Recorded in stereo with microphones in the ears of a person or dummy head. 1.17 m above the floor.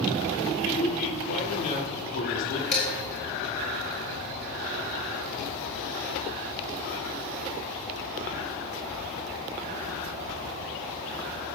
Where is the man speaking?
50° left (ahead or behind), 3 m.